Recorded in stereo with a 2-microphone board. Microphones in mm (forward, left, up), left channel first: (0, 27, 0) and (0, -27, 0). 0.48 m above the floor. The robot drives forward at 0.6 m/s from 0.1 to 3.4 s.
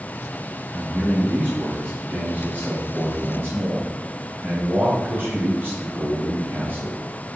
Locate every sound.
0.7 s a man speaking: 30° right (ahead or behind), 4.5 m; by 7.0 s 40° right (ahead or behind), 3.5 m